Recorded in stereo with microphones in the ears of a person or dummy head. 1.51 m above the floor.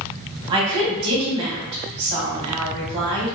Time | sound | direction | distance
0.5 | a woman speaking | 25° right (ahead or behind) | 0.9 m